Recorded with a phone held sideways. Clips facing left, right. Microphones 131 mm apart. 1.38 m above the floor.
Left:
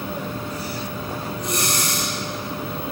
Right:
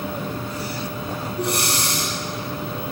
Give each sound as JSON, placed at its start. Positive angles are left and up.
{"t": 1.4, "sound": "breathing", "side_deg": -65, "distance_m": 10.0}